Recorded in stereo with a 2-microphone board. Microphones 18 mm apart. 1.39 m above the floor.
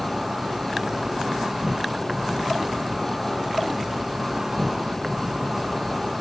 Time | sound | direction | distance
0.0 | an insect | 30° right (ahead or behind) | 1.1 m